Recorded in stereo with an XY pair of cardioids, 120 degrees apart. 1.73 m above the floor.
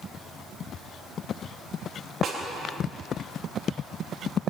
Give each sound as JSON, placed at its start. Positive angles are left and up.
{"t": 2.2, "sound": "a snare drum", "azimuth_deg": -45, "distance_m": 4.0}